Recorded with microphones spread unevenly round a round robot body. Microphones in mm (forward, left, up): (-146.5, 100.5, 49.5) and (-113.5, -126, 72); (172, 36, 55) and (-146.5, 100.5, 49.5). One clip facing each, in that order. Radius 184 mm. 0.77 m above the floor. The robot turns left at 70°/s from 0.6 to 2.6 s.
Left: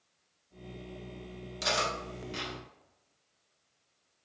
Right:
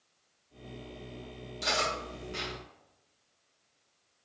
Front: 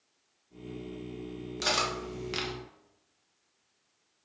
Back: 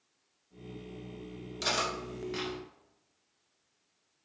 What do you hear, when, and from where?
1.6 s cutlery clinking: 80° left, 0.8 m; by 2.5 s 10° left, 0.8 m